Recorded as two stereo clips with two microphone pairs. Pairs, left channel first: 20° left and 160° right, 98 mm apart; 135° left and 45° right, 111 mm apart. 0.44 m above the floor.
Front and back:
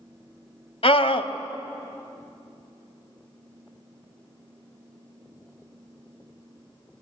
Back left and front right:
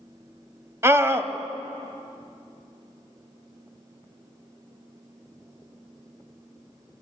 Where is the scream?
20° left, 2 m.